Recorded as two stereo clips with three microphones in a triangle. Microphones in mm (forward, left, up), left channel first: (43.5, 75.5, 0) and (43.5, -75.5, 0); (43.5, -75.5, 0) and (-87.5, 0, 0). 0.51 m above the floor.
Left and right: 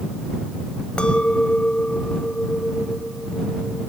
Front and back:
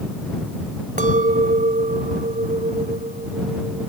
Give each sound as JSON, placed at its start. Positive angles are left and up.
{"t": 1.0, "sound": "a clink", "azimuth_deg": 175}